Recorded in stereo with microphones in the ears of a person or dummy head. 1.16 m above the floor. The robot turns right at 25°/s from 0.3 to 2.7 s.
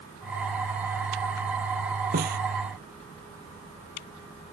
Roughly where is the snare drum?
Right.